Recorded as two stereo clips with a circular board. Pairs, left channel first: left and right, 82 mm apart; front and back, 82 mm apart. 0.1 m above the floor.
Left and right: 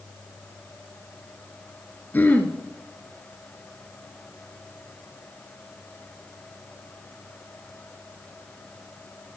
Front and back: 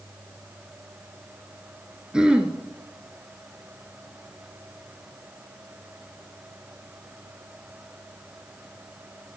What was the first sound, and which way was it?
Throat clearing, 115° left.